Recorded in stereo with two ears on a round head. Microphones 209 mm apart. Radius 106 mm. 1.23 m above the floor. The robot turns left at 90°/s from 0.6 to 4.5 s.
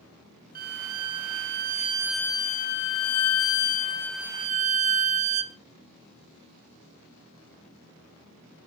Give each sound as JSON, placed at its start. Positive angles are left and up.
{"t": 0.6, "sound": "a violin", "azimuth_deg": -40, "distance_m": 0.8}